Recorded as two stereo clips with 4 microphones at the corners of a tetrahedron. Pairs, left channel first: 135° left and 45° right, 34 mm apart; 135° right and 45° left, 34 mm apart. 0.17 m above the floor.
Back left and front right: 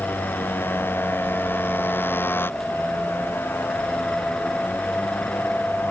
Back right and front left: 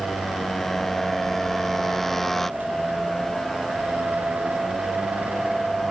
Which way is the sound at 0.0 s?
145° left.